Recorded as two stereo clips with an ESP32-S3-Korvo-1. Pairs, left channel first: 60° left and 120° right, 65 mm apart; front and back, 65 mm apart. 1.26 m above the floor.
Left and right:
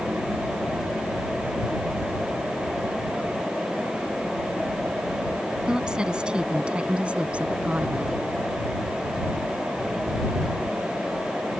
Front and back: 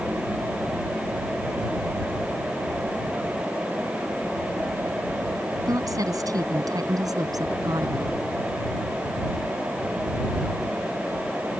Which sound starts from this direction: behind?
A woman speaking, at 5.7 s.